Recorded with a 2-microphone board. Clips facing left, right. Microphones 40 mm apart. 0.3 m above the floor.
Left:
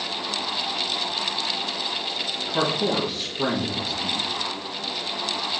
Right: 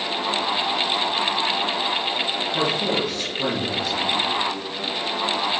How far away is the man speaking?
About 4 m.